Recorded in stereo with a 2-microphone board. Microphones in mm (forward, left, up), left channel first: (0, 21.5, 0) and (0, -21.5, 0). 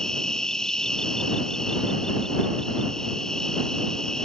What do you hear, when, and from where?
0.0 s an insect: 15° left (ahead or behind)